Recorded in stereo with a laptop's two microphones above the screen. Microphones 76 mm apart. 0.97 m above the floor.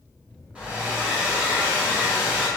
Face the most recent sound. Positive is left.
turn(degrees=-15)  # may be behind; listen again after turning